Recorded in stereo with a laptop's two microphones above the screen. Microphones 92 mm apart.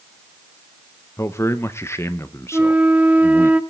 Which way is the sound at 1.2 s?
30° left (ahead or behind).